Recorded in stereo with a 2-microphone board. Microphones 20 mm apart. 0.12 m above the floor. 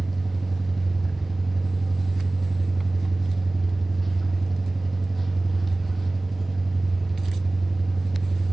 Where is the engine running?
10° left (ahead or behind), 1.3 m.